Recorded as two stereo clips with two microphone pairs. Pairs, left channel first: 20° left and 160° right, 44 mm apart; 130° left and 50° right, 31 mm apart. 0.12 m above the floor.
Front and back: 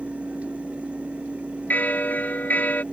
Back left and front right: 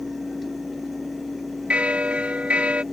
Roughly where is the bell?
Ahead.